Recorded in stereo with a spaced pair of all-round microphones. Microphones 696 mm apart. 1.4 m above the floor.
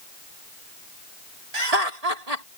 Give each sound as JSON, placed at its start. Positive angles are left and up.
{"t": 1.5, "sound": "laughter", "side_deg": -60}